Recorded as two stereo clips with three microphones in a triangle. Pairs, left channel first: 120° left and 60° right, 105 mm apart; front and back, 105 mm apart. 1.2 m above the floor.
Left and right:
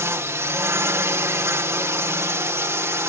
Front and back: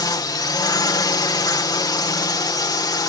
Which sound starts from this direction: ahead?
A drone, at 0.0 s.